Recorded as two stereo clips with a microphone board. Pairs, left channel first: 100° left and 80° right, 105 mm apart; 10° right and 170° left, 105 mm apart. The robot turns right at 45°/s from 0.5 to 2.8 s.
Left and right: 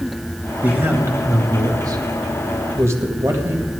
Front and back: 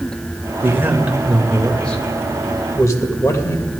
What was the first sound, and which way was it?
A man speaking, 140° right.